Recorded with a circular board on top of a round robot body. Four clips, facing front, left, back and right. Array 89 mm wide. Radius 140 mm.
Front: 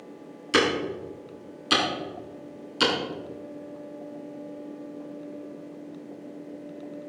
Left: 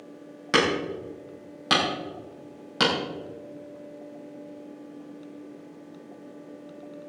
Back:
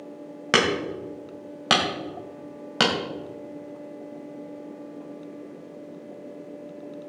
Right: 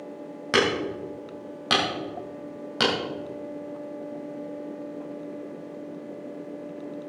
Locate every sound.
0.5 s hammering: 175° right, 3 m